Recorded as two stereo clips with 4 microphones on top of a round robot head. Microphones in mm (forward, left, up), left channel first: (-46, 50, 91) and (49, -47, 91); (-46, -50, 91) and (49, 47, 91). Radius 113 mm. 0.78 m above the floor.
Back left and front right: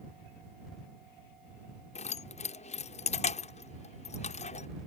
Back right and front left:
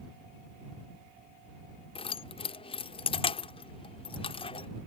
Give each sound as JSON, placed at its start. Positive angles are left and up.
{"t": 1.9, "sound": "keys jangling", "azimuth_deg": 175}